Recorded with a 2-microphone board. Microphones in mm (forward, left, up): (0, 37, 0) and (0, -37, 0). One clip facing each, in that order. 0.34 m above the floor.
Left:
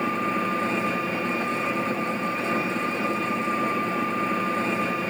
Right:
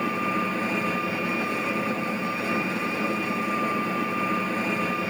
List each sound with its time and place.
0.0 s an engine running: 10° right (ahead or behind), 8 m